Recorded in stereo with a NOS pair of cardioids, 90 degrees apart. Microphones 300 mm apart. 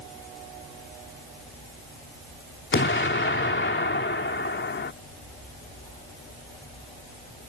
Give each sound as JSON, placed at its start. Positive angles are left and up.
{"t": 2.7, "sound": "an explosion", "azimuth_deg": 40}